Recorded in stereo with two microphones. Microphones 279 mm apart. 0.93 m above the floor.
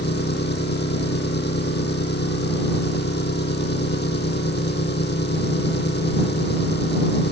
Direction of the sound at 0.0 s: 35° left (ahead or behind).